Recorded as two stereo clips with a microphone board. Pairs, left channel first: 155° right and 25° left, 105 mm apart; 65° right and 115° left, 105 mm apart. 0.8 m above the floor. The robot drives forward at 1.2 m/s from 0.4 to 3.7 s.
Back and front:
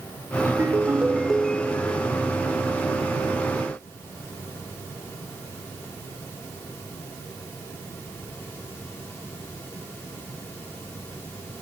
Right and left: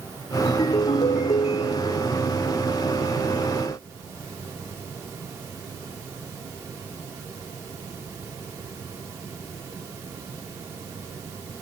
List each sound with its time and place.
0.5 s a ringtone: 40° right; by 2.1 s 105° right